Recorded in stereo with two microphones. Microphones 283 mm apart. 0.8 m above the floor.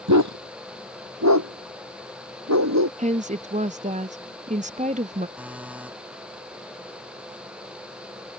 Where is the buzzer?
5° right (ahead or behind).